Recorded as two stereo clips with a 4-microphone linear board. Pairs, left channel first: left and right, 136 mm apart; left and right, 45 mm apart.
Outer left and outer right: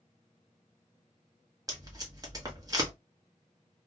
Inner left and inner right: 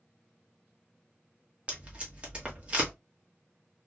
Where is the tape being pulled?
25° right (ahead or behind), 1.0 m.